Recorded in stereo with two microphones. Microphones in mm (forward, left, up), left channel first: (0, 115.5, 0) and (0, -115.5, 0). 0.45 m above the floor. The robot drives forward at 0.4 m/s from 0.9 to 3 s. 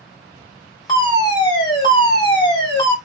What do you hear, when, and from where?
0.9 s a fire alarm: 20° left (ahead or behind), 2.0 m